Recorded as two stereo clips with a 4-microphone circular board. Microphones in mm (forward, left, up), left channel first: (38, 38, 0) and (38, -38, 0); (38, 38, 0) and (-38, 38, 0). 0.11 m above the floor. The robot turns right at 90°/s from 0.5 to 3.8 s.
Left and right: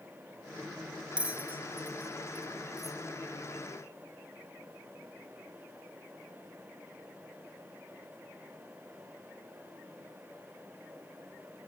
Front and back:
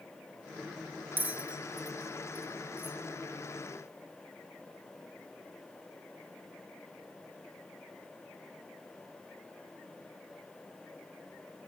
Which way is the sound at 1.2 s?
150° right.